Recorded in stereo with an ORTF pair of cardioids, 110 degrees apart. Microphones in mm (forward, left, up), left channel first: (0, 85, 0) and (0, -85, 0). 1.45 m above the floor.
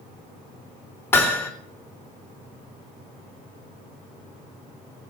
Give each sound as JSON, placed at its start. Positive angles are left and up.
{"t": 1.1, "sound": "hammering", "azimuth_deg": 15, "distance_m": 2.5}